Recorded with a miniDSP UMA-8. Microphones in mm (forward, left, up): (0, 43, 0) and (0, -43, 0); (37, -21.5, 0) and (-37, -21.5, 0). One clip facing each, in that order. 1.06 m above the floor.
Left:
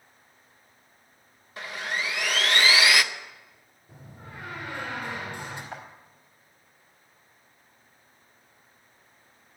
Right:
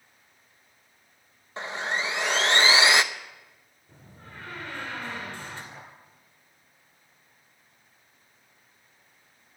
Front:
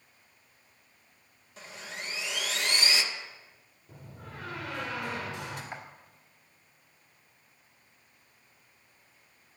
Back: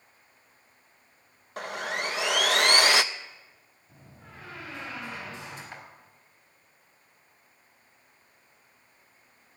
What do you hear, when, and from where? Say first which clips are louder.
1.6 s sawing: right 2 dB, back 11 dB; 155° right, 0.6 m
3.9 s a door slam: left 3 dB, front 4 dB; 15° left, 3 m
5.7 s a clap: left 6 dB, front 3 dB; 65° left, 4 m